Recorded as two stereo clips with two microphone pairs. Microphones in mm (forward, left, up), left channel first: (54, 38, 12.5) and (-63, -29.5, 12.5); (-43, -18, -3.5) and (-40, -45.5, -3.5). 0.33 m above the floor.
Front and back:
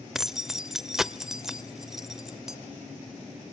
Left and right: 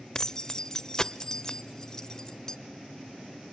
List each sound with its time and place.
0.1 s keys jangling: 130° left, 0.6 m